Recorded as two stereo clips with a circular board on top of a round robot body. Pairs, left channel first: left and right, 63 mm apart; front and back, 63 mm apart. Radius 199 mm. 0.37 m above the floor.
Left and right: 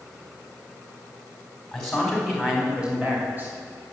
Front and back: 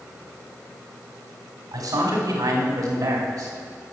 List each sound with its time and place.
1.7 s a man speaking: 175° left, 3.5 m; by 3.5 s 150° right, 3 m